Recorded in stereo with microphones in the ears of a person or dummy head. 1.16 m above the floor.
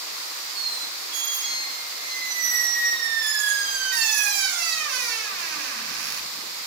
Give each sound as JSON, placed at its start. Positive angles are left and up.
{"t": 0.6, "sound": "a squeak", "side_deg": -60, "distance_m": 4.5}